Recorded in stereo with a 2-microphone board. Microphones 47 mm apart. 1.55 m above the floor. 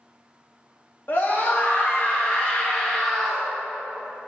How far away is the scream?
About 2.5 m.